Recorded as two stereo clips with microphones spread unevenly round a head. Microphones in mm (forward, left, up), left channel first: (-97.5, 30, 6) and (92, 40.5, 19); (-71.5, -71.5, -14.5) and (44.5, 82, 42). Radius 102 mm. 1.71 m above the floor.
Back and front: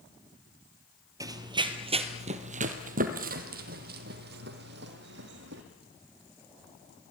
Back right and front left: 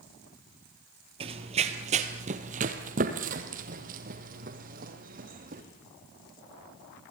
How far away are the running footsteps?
About 2.5 m.